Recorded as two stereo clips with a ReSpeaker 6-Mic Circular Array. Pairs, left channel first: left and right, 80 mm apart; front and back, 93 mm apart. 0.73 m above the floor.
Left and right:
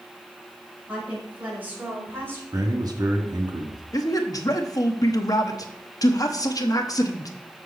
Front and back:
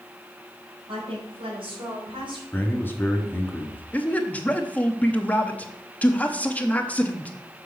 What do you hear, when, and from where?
0.9 s a woman speaking: 165° right, 4.5 m; by 2.4 s 150° right, 3.5 m
2.5 s a man speaking: 65° right, 1.5 m
3.9 s a man speaking: 70° left, 0.9 m